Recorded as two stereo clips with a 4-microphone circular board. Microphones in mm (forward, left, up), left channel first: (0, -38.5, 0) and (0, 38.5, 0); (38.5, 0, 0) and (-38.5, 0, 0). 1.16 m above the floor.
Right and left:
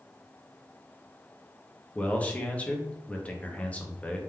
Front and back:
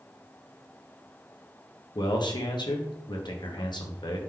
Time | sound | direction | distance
1.9 | a man speaking | 20° right | 0.8 m